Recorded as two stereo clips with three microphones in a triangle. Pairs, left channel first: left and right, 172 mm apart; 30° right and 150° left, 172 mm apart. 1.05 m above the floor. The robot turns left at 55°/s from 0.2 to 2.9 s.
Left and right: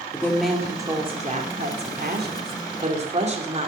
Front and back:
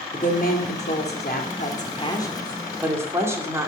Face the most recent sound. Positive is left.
turn(degrees=-135)